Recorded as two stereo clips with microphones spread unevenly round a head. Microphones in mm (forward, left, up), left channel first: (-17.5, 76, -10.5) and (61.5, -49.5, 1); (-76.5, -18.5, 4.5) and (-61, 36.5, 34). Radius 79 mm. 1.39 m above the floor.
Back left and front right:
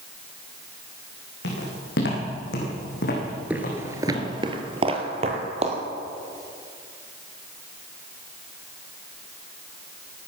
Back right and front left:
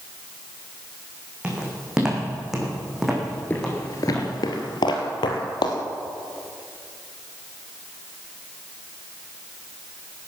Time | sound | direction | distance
1.4 | footsteps | 140° left | 6 m
3.5 | footsteps | straight ahead | 1.4 m